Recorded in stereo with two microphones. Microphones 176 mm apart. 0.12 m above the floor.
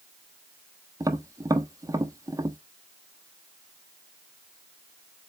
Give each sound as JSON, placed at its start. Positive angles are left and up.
{"t": 1.0, "sound": "tapping", "side_deg": -20, "distance_m": 0.8}